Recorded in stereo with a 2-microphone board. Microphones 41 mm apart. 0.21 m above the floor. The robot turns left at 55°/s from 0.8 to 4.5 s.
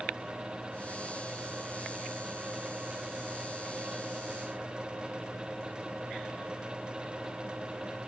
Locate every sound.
Only background noise.